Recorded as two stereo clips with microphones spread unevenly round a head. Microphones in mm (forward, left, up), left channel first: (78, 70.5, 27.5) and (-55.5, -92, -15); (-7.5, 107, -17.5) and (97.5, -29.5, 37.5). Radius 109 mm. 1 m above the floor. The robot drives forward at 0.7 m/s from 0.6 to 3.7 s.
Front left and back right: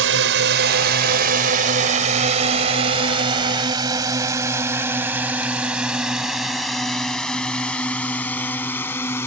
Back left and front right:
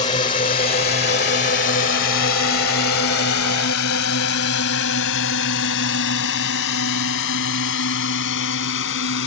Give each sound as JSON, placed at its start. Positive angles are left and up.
{"t": 0.0, "sound": "a drone", "azimuth_deg": -165}